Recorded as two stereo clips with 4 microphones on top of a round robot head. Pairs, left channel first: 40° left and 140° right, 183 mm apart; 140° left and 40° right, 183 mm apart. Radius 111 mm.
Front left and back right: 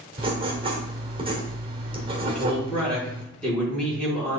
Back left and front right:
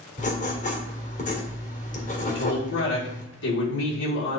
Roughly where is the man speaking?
Behind left.